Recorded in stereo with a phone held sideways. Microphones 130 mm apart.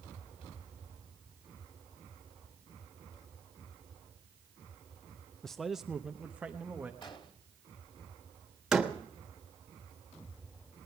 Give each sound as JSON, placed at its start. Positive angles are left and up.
{"t": 5.4, "sound": "a man speaking", "side_deg": 5, "distance_m": 0.5}
{"t": 7.0, "sound": "an explosion", "side_deg": 35, "distance_m": 2.5}
{"t": 8.7, "sound": "a door slam", "side_deg": 0, "distance_m": 1.3}